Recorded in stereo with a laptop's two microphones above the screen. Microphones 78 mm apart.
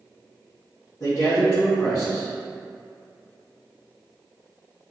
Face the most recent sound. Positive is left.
turn(degrees=70)  # may be behind; listen again after turning